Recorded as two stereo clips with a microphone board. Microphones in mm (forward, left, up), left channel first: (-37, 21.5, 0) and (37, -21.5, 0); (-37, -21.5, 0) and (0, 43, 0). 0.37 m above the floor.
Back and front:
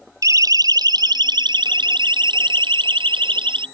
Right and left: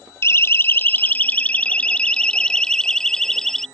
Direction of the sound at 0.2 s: 75° right.